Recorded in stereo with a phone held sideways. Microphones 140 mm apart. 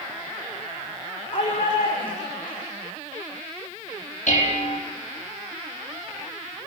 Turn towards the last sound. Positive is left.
turn(degrees=55)  # may be behind; listen again after turning